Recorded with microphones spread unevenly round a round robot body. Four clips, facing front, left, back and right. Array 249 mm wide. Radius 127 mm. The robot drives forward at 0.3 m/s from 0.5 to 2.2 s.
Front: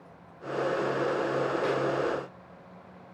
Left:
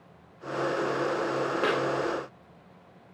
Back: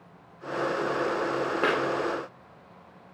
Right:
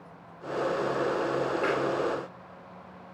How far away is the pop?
About 0.7 m.